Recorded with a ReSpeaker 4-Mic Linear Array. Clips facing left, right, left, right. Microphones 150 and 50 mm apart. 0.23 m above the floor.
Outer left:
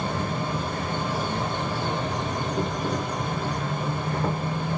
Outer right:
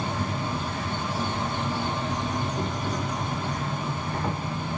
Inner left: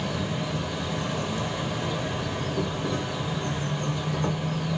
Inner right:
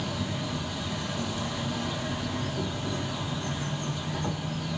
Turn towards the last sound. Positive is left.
turn(degrees=60)  # may be behind; listen again after turning